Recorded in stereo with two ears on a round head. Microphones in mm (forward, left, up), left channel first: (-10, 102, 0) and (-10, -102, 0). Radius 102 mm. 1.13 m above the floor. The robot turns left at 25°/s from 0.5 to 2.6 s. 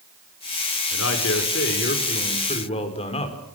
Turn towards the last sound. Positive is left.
turn(degrees=25)